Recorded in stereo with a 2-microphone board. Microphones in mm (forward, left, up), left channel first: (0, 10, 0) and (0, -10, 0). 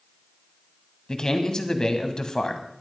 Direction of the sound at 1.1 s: 35° left (ahead or behind).